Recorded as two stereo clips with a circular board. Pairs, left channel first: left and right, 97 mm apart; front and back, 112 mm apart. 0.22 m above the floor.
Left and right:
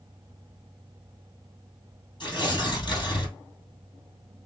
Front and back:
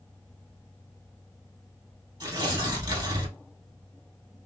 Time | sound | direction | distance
2.2 | tearing paper | 130° left | 2.5 m